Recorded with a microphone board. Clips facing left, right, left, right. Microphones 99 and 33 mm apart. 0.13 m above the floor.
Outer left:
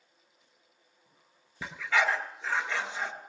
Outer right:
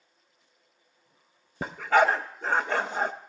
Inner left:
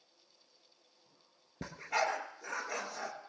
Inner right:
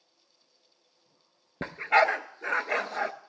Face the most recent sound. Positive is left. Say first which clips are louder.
# outer right 7 dB, inner right 11 dB
turn(degrees=-50)  # may be behind; listen again after turning